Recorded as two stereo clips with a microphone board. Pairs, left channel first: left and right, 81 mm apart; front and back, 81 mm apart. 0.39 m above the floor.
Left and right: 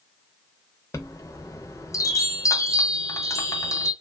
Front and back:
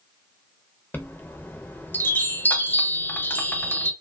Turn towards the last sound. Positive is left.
turn(degrees=60)